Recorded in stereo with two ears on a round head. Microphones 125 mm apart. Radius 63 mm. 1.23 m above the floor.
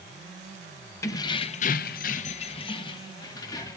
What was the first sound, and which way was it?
Keys jangling, 20° left (ahead or behind).